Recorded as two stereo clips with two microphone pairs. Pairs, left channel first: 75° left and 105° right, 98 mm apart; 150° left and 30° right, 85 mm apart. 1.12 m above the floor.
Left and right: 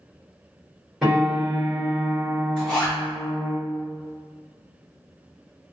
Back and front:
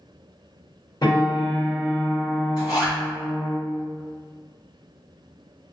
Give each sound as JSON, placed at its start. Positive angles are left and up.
{"t": 1.0, "sound": "a piano", "azimuth_deg": 170, "distance_m": 1.6}
{"t": 2.6, "sound": "a zipper", "azimuth_deg": 160, "distance_m": 1.8}